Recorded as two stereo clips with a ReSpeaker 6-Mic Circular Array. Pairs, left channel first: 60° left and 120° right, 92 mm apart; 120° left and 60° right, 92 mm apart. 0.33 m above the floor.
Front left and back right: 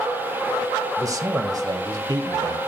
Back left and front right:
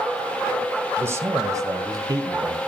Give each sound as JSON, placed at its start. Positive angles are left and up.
{"t": 1.0, "sound": "a man speaking", "azimuth_deg": -105, "distance_m": 1.6}